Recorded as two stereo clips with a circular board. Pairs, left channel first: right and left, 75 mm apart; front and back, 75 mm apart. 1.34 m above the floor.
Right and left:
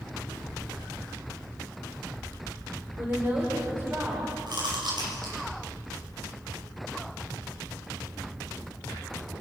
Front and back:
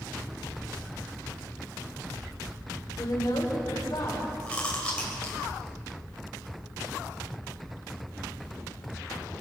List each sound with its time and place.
3.0 s a woman speaking: 30° left, 5 m; by 4.3 s 35° left, 6.5 m
4.5 s chewing: 75° left, 7 m